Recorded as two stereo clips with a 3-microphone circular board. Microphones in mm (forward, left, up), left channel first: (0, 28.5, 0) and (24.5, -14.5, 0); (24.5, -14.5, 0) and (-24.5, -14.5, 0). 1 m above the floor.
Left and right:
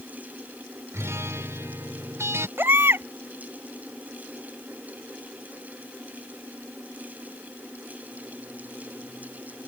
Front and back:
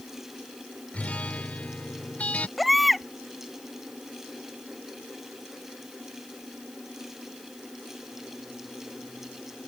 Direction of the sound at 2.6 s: 90° right.